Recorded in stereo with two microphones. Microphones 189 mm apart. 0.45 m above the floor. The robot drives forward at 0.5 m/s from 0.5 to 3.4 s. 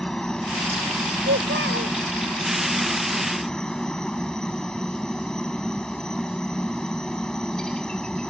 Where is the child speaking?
85° right.